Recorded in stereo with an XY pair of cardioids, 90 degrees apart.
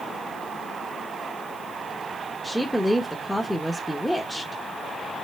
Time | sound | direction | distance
2.4 | a woman speaking | straight ahead | 0.9 m